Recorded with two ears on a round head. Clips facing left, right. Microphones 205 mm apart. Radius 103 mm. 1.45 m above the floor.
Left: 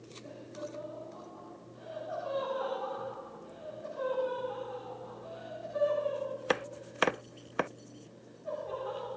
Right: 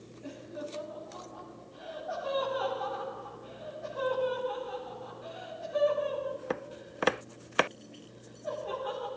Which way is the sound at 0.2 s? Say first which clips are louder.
Right 3 dB; 70° right (ahead or behind).